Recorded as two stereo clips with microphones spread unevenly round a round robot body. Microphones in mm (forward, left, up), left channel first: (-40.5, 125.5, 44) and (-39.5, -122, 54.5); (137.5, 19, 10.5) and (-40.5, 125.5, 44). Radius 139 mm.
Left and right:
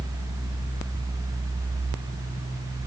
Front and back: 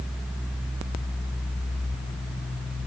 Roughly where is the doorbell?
I don't hear a doorbell.